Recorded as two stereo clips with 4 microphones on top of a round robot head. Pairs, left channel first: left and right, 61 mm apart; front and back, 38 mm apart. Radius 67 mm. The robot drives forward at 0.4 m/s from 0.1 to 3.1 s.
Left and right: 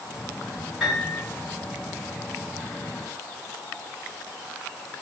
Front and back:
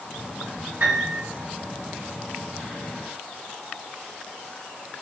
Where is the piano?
Straight behind, 4.5 m.